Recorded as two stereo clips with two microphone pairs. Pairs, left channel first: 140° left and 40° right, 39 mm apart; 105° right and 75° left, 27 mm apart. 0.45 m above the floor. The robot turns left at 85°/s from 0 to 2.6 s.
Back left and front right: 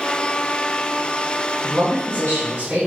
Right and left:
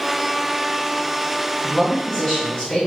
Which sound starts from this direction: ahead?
A man speaking, at 1.6 s.